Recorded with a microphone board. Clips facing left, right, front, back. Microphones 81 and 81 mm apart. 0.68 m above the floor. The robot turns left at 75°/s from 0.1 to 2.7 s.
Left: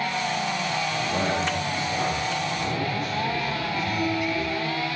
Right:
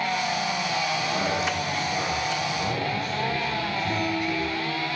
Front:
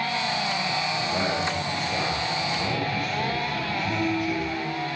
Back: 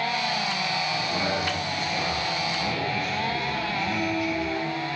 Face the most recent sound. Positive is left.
turn(degrees=-30)